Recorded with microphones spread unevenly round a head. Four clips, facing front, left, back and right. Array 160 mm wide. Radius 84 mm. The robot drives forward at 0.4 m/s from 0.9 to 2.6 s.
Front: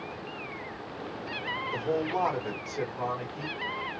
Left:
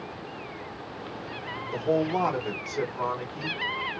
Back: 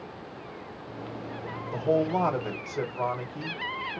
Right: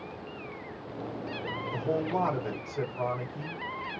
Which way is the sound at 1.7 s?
165° left.